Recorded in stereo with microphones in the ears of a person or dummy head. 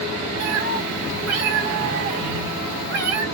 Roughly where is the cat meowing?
Right.